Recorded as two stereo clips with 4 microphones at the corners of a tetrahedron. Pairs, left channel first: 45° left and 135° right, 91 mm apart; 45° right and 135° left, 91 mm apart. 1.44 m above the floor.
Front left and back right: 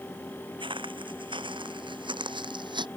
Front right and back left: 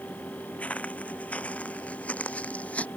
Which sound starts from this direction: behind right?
Footsteps, at 0.6 s.